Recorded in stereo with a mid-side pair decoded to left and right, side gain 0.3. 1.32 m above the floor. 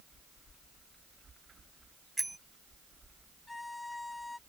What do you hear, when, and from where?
2.2 s a bicycle bell: 20° right
3.5 s a violin: 30° left